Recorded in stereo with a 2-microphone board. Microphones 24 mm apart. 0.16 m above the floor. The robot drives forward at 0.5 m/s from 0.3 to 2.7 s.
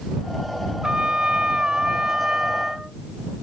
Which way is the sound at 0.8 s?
40° right (ahead or behind).